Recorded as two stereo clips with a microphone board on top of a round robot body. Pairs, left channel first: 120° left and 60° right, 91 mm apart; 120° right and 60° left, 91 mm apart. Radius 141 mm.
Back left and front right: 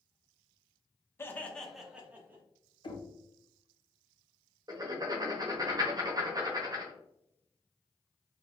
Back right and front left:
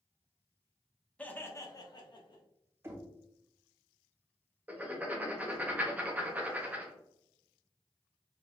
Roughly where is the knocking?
Behind left.